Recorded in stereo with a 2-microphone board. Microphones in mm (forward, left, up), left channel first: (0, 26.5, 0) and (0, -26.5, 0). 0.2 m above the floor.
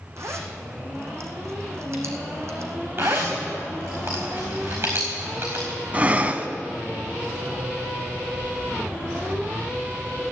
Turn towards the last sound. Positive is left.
turn(degrees=-30)  # may be behind; listen again after turning